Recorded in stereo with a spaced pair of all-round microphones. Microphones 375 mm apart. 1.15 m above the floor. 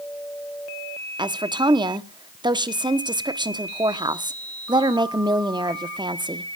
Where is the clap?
I don't hear a clap.